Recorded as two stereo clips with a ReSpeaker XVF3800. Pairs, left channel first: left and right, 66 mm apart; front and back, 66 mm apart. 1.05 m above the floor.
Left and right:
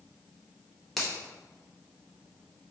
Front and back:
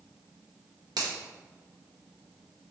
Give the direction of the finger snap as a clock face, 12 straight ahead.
6 o'clock.